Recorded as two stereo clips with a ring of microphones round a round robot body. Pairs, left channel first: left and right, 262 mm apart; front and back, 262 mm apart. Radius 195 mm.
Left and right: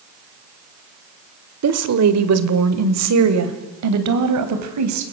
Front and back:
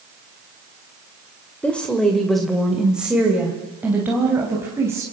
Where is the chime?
I don't hear a chime.